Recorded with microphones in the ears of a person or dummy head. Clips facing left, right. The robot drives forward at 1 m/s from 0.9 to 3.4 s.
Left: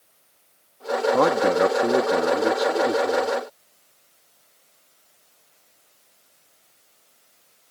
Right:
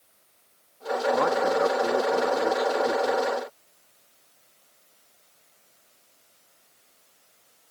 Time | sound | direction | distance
1.1 | a man speaking | 50° left (ahead or behind) | ?